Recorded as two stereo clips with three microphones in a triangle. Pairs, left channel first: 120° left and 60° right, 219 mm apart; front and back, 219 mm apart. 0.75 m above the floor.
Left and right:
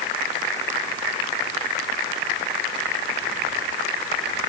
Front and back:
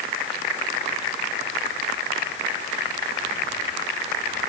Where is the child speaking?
No child speaking in this recording.